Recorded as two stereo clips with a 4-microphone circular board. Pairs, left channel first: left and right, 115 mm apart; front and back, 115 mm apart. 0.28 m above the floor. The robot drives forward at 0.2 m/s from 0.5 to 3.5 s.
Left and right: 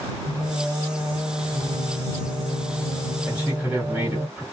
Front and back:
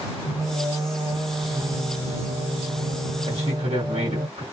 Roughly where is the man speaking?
Behind.